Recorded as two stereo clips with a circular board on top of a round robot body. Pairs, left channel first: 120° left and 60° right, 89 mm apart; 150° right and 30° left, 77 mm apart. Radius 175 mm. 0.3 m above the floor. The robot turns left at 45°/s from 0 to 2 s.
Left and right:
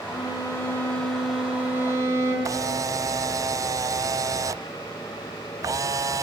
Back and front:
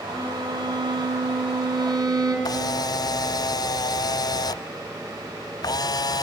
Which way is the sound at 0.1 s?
80° left.